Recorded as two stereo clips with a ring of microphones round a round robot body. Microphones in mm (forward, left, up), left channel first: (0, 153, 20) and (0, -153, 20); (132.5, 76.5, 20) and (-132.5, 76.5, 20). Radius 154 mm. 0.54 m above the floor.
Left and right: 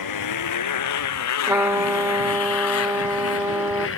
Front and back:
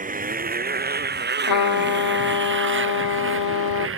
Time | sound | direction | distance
0.0 | a motorcycle | 120° left | ?
1.5 | a trumpet | 5° right | ?